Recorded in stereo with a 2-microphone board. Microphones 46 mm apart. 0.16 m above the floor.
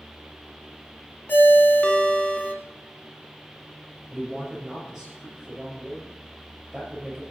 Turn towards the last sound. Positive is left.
turn(degrees=-15)  # may be behind; listen again after turning